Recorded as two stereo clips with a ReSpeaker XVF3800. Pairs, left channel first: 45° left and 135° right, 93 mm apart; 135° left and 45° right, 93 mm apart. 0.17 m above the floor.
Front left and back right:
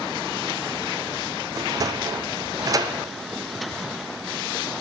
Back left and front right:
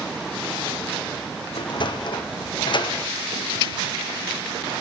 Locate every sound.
1.6 s a sliding door: 170° left, 1.4 m